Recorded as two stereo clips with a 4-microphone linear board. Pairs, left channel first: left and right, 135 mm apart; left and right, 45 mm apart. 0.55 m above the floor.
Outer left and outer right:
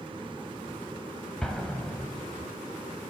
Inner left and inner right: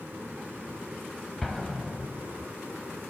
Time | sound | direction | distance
1.4 | an explosion | 5° left (ahead or behind) | 0.7 m